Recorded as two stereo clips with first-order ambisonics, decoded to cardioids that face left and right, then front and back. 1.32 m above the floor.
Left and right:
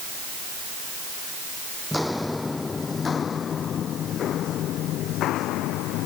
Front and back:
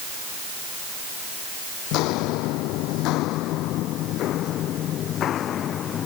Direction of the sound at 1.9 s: 5° left.